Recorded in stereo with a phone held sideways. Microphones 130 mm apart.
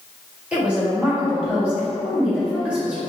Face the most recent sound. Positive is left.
turn(degrees=-10)  # may be behind; listen again after turning